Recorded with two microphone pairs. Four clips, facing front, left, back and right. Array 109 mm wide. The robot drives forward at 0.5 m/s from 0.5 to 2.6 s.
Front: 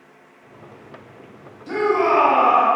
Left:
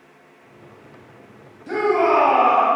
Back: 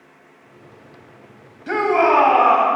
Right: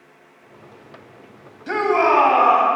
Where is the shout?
135° right, 2 m; by 2.7 s 145° right, 2.5 m.